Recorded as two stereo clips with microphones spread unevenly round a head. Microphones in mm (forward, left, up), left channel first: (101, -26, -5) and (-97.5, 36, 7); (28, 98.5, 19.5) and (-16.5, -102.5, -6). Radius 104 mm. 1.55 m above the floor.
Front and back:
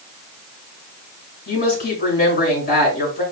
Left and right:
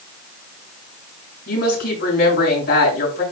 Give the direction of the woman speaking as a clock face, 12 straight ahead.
11 o'clock.